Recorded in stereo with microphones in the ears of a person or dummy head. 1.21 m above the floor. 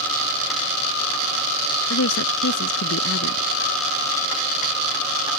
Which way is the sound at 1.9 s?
75° left (ahead or behind).